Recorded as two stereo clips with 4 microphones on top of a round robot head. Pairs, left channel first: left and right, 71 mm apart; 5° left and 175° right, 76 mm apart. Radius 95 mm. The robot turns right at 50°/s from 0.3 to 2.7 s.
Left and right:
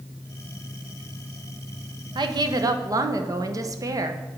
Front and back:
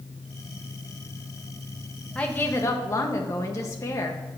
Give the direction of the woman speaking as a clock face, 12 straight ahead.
3 o'clock.